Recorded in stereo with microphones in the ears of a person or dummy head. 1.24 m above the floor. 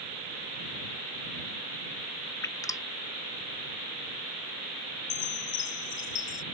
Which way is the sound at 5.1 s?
40° left (ahead or behind).